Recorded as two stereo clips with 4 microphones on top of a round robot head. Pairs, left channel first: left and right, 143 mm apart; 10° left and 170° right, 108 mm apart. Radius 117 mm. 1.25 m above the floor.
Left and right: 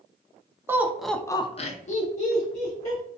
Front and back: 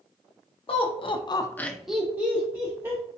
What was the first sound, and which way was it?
Laughter, 15° right.